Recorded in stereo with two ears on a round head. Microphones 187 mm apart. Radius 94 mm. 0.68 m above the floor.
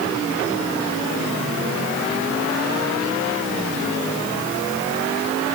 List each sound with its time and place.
Only background noise.